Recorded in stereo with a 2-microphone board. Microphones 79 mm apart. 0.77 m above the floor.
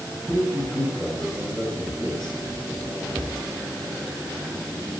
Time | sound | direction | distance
0.3 | a man speaking | 15° right (ahead or behind) | 5.5 m